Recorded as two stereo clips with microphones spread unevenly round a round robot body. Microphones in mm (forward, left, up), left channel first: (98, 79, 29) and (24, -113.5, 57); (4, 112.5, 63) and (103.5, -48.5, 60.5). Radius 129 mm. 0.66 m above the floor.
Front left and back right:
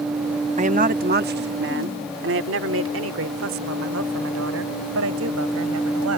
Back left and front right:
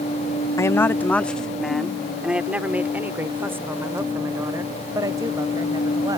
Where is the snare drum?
I don't hear a snare drum.